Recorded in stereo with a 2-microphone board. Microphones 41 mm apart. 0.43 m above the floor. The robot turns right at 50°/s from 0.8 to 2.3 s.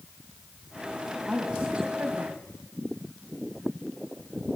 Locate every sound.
1.1 s a woman speaking: 175° right, 3 m; by 2.4 s 115° right, 3 m